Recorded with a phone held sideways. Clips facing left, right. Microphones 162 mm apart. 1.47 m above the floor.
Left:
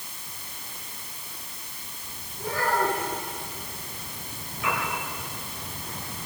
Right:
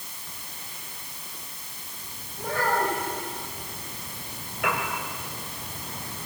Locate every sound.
2.4 s a child speaking: 60° right (ahead or behind), 7.5 m
4.6 s a piano: 70° right (ahead or behind), 5.5 m